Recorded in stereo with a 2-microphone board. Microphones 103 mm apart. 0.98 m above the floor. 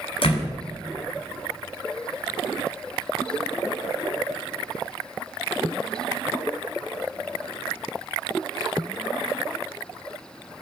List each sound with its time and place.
0.2 s a door slam: 60° left (ahead or behind), 6.5 m